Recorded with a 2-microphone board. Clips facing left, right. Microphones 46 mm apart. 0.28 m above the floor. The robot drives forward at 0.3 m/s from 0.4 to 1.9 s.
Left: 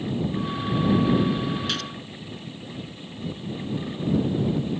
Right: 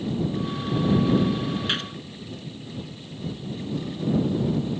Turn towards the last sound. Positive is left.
turn(degrees=-25)  # may be behind; listen again after turning